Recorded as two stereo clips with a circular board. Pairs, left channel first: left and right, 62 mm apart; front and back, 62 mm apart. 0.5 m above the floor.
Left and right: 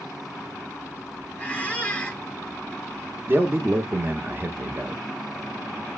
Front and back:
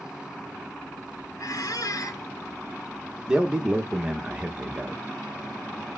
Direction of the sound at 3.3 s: 110° right.